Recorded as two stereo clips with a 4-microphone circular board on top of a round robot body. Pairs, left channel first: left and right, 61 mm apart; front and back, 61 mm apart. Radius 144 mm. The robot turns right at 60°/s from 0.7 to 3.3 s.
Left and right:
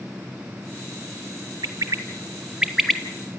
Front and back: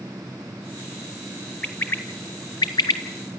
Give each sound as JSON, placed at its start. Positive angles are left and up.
{"t": 1.6, "sound": "a bird", "azimuth_deg": -75, "distance_m": 1.2}